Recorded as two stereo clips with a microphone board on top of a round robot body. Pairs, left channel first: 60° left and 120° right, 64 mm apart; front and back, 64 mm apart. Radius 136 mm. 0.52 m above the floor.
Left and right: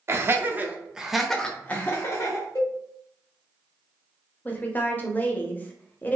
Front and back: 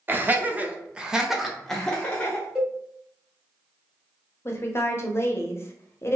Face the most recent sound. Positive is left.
turn(degrees=15)